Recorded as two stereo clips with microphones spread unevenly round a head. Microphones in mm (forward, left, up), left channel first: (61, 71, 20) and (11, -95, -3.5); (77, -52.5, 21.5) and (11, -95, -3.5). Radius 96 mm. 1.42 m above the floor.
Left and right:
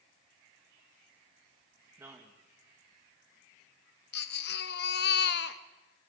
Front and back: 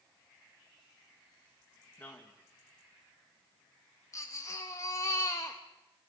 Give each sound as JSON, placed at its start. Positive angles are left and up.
{"t": 2.0, "sound": "a man speaking", "azimuth_deg": -30, "distance_m": 2.5}
{"t": 4.1, "sound": "a baby crying", "azimuth_deg": 90, "distance_m": 1.1}